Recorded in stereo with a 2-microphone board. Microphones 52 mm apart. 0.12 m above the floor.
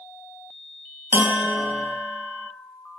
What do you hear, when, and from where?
1.1 s a bell: 50° right (ahead or behind), 0.6 m